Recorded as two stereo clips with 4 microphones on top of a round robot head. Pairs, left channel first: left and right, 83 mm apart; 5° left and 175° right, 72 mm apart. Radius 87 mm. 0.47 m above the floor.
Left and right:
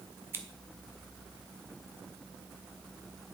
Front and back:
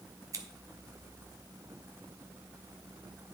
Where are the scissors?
150° right, 1.5 m.